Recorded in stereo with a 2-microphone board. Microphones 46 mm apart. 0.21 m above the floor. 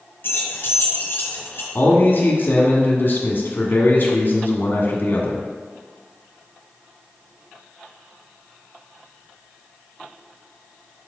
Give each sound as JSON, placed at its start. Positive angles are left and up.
{"t": 0.2, "sound": "keys jangling", "side_deg": 50, "distance_m": 2.0}
{"t": 1.8, "sound": "a man speaking", "side_deg": 50, "distance_m": 1.4}